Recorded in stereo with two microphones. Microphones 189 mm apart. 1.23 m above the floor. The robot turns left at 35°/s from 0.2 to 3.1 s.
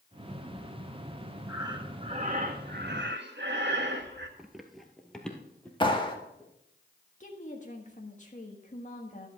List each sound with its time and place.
1.5 s breathing: 15° right, 1.4 m; by 4.3 s 70° right, 1.4 m
4.4 s running footsteps: 5° right (ahead or behind), 1.2 m; by 6.5 s 10° left (ahead or behind), 2.5 m
5.8 s a clap: 25° left (ahead or behind), 1.6 m
7.2 s a woman speaking: 40° left (ahead or behind), 1.5 m